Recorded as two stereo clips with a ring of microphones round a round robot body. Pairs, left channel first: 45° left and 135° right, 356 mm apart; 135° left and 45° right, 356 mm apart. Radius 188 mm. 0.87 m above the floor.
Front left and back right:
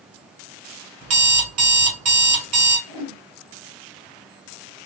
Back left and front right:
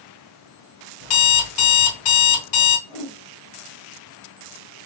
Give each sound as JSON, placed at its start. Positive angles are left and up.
{"t": 1.0, "sound": "an alarm clock", "azimuth_deg": 170, "distance_m": 1.7}
{"t": 2.9, "sound": "a whoosh", "azimuth_deg": -150, "distance_m": 3.0}